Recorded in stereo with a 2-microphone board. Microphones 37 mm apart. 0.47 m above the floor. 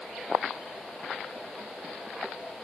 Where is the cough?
I don't hear a cough.